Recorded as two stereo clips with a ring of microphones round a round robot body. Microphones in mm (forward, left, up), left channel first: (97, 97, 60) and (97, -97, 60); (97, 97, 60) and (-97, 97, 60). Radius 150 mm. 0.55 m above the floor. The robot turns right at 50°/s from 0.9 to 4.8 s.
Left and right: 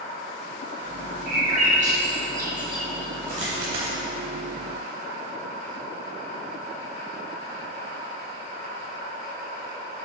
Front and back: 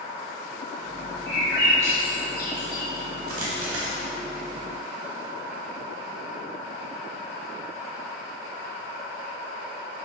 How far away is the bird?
About 1.6 m.